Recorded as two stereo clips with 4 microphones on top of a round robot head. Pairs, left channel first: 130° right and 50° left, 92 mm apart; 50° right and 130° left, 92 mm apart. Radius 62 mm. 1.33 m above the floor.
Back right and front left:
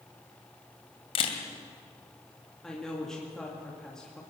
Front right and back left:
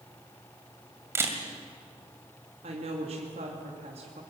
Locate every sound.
1.1 s a camera shutter: 165° right, 2 m
2.6 s a woman speaking: 145° left, 2.5 m